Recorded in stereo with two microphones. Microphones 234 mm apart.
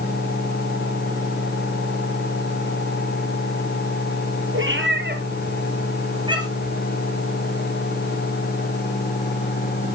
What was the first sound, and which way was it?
A cat meowing, 60° right (ahead or behind).